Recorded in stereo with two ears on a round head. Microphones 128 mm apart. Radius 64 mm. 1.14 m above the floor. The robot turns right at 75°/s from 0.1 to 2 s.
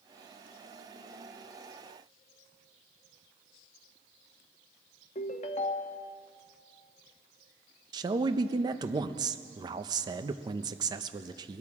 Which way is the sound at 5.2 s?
50° left (ahead or behind).